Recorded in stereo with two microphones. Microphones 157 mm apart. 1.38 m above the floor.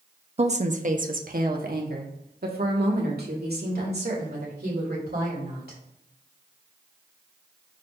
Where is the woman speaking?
40° right (ahead or behind), 0.7 m; by 5.8 s 80° right, 3.5 m.